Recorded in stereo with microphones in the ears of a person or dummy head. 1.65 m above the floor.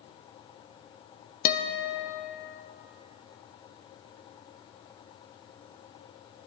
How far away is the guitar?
About 0.5 m.